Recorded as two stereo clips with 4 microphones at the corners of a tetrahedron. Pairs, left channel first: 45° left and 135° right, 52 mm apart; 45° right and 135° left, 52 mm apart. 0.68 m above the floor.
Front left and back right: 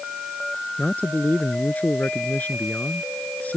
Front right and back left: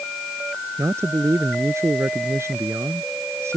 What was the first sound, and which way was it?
A man speaking, 100° left.